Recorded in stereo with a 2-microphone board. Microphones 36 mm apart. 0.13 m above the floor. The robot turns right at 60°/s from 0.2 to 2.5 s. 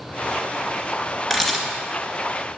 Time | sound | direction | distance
1.3 | a camera shutter | 5° right (ahead or behind) | 2.0 m